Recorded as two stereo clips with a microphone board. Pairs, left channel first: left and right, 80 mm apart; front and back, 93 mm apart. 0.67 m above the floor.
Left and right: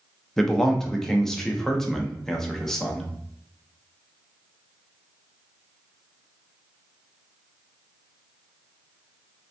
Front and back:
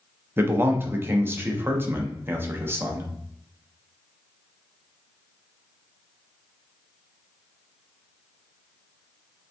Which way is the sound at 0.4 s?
165° left.